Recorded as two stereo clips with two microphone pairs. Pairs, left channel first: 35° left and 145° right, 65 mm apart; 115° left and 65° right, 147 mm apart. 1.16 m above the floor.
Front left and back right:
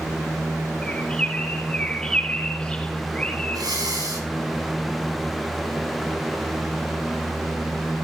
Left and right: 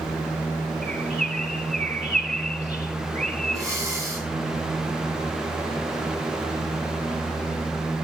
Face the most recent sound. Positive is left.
turn(degrees=-130)